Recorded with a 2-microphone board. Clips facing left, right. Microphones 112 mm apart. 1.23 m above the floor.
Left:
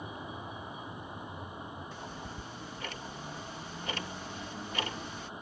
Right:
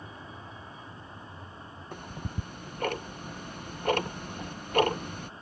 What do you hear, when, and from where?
0.0 s a vehicle: 15° left (ahead or behind)
1.9 s ticking: 55° right (ahead or behind)